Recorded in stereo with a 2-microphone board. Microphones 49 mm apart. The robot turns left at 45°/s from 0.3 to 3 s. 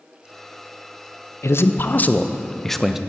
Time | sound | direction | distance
1.4 | a man speaking | 65° left | 0.6 m